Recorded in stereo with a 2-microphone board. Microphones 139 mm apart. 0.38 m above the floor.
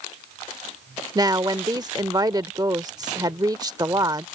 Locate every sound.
1.1 s a woman speaking: 30° right (ahead or behind)